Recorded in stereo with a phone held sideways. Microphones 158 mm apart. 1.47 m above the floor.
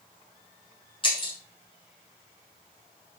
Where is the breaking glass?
35° left (ahead or behind), 3.5 m.